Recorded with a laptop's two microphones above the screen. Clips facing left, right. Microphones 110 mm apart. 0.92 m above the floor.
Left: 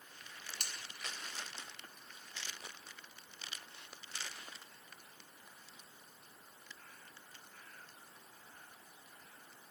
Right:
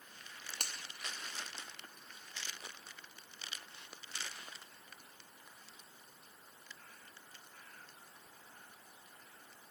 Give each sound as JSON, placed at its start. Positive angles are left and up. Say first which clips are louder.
{"t": 0.6, "sound": "a finger snap", "louder": "right 3 dB", "side_deg": -55, "distance_m": 0.8}